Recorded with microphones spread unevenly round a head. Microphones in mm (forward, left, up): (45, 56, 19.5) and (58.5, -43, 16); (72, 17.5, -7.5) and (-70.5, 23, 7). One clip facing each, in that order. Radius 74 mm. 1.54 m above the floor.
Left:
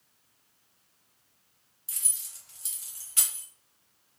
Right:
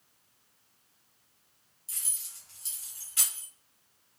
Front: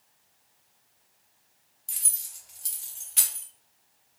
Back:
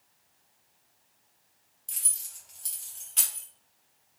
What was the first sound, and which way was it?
Keys jangling, 85° left.